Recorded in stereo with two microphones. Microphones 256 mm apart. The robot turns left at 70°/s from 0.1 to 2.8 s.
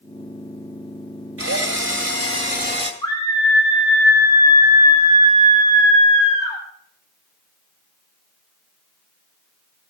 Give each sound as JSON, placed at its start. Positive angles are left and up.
{"t": 1.4, "sound": "a drill", "azimuth_deg": -60, "distance_m": 1.7}
{"t": 3.0, "sound": "a scream", "side_deg": 15, "distance_m": 3.0}